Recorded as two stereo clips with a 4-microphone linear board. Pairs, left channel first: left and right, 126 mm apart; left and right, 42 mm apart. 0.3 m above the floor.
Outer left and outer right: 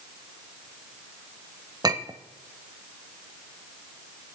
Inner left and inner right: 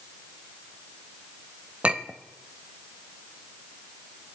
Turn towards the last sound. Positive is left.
turn(degrees=-30)  # may be behind; listen again after turning